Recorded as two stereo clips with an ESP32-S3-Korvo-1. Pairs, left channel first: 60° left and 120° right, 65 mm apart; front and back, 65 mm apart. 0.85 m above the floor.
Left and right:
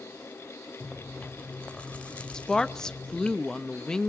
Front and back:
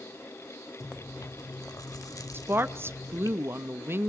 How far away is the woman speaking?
About 0.5 m.